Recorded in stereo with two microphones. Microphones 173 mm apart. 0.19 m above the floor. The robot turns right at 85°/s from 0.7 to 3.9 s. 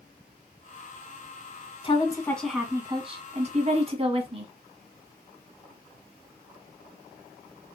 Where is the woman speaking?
125° left, 1.5 m; by 4.5 s 60° right, 1.5 m.